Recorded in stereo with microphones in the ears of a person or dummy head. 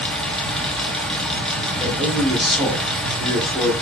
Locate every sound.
0.0 s a fan: centre (ahead or behind), 0.8 m
1.8 s a man speaking: centre (ahead or behind), 1.4 m